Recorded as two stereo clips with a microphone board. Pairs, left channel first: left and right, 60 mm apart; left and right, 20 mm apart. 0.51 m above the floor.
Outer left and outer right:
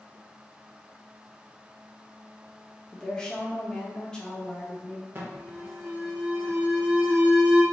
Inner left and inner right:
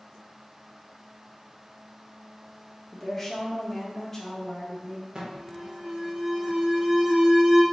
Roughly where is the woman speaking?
Centre.